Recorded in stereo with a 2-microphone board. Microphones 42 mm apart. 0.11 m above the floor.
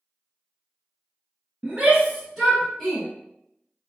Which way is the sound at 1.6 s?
25° right (ahead or behind).